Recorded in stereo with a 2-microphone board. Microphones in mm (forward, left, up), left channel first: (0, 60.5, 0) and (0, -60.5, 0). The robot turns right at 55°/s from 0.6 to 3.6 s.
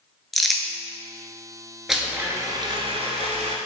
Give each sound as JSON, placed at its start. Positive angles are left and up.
{"t": 0.3, "sound": "crumpling", "side_deg": 0, "distance_m": 0.5}
{"t": 1.9, "sound": "a blender", "azimuth_deg": 180, "distance_m": 0.7}